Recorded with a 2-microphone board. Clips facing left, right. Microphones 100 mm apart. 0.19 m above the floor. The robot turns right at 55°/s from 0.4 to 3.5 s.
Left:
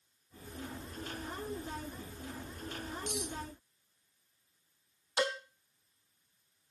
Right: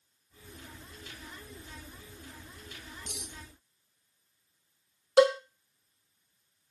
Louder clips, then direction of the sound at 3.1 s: Left 10 dB; 55° left (ahead or behind).